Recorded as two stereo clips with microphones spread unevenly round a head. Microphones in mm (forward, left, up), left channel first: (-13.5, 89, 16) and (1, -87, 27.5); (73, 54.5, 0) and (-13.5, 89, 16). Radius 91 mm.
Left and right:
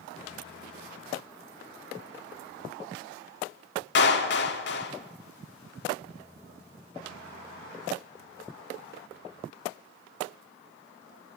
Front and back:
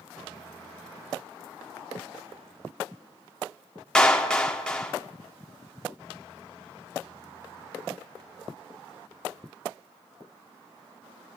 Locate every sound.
4.0 s a clap: 65° left, 2.5 m